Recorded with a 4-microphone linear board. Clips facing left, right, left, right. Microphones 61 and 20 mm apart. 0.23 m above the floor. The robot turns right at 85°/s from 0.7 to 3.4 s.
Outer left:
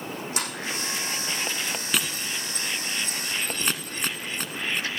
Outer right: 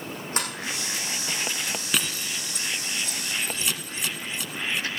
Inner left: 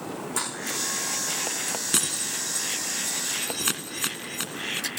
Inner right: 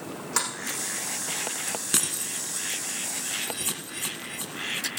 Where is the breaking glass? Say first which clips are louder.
Even, inner left 1 dB; centre (ahead or behind), 1.3 m; by 4.9 s 50° left (ahead or behind), 1.3 m.